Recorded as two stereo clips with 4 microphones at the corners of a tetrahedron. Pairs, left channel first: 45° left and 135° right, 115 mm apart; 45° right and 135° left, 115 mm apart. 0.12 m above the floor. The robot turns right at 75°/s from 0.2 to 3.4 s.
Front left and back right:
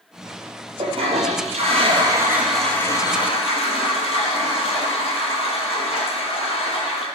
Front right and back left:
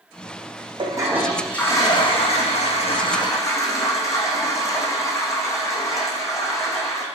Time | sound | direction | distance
0.8 | a toilet flushing | straight behind | 0.6 m